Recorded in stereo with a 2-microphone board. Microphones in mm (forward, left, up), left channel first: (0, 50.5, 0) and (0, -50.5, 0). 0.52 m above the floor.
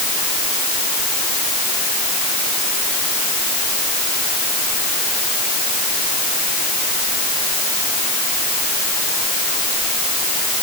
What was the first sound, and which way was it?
Only background noise.